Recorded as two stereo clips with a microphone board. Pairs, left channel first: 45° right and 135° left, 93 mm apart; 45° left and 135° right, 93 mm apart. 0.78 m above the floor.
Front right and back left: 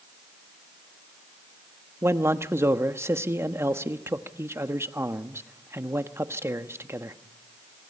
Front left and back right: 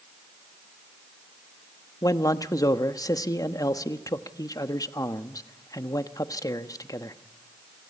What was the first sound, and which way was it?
A man speaking, 80° left.